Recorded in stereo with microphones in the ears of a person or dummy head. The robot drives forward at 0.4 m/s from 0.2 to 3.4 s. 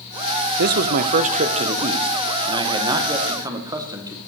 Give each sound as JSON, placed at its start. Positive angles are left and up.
{"t": 0.6, "sound": "a man speaking", "side_deg": -55, "distance_m": 0.6}